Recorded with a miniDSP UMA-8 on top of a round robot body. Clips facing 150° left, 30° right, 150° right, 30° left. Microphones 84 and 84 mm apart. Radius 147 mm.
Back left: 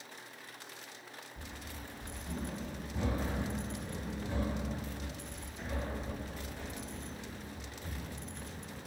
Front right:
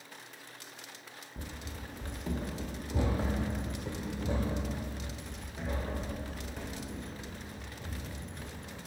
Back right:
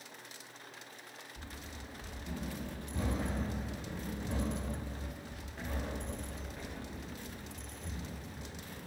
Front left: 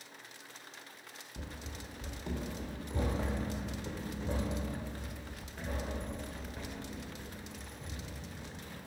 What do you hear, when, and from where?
1.4 s running footsteps: 25° left, 0.6 m; by 8.8 s 50° right, 4 m